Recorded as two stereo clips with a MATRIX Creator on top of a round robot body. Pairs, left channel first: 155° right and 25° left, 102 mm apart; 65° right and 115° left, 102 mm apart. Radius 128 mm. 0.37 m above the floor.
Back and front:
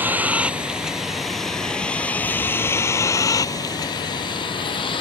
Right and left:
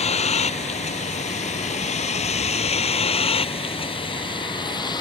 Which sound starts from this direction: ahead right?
A vehicle, at 0.0 s.